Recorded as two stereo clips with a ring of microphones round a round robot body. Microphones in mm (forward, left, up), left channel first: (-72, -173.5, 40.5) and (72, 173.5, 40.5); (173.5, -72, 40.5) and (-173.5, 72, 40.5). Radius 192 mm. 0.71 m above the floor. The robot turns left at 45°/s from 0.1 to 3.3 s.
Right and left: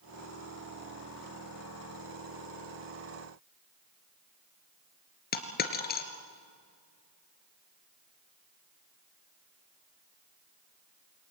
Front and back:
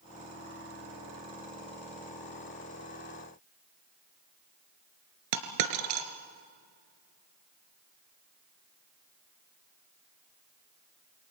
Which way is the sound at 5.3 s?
Straight behind.